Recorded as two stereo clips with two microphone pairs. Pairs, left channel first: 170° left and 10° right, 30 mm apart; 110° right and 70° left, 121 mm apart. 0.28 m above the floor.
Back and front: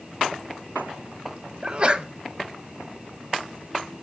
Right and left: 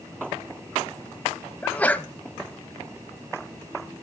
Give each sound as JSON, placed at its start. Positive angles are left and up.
{"t": 1.6, "sound": "a sneeze", "azimuth_deg": -45, "distance_m": 1.5}